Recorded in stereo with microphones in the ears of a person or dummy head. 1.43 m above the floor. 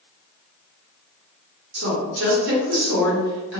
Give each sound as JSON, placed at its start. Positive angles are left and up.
{"t": 1.7, "sound": "a woman speaking", "side_deg": -70, "distance_m": 1.4}